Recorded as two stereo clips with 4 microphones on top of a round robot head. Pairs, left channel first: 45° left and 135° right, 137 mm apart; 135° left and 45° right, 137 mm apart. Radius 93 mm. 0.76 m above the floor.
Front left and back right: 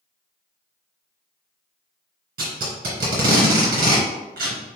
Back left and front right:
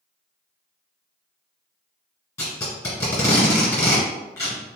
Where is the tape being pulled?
155° right, 2.0 m.